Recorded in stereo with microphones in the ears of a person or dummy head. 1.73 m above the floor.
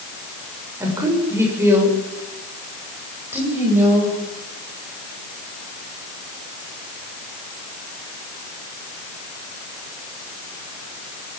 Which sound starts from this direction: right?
A woman speaking, at 0.8 s.